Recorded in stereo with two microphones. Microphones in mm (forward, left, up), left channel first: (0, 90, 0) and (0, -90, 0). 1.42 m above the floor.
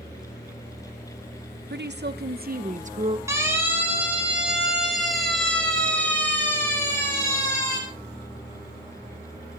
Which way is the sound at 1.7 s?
75° right (ahead or behind).